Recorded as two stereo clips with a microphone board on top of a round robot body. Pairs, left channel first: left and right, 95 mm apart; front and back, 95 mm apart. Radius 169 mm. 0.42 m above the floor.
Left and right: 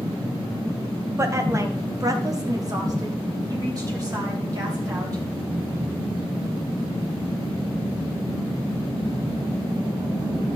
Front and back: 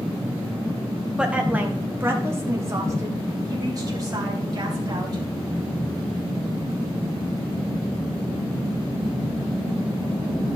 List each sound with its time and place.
1.2 s a woman speaking: 110° right, 1.4 m; by 5.2 s 135° right, 3 m